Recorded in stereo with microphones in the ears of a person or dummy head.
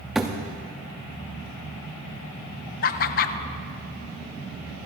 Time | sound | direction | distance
0.1 | a thud | centre (ahead or behind) | 0.7 m
2.8 | laughter | 40° left (ahead or behind) | 0.6 m